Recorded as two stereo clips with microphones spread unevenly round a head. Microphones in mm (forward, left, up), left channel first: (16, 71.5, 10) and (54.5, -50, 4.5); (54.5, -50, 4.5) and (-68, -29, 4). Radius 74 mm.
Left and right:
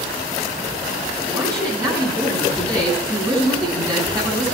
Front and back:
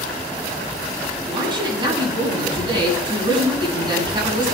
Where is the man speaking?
140° right, 10 m.